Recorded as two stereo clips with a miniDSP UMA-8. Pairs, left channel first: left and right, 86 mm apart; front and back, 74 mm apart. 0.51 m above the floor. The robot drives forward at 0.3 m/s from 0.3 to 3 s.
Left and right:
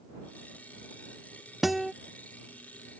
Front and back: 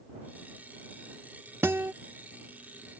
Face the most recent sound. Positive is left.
turn(degrees=180)